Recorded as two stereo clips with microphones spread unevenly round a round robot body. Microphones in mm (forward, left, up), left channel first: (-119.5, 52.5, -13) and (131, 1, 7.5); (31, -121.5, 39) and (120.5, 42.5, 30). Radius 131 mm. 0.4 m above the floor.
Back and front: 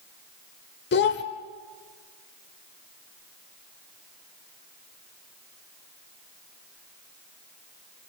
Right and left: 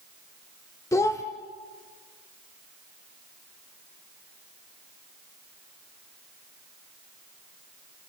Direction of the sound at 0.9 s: 170° left.